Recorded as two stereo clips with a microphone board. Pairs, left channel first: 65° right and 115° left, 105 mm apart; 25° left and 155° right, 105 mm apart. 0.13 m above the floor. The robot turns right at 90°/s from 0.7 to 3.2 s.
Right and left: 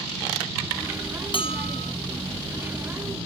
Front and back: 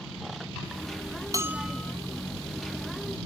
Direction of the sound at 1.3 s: 100° right.